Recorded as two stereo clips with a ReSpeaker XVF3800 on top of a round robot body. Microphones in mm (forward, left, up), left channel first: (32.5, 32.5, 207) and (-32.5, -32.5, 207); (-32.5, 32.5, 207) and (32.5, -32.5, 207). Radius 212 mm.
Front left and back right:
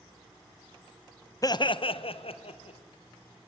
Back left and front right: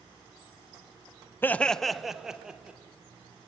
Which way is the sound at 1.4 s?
75° left.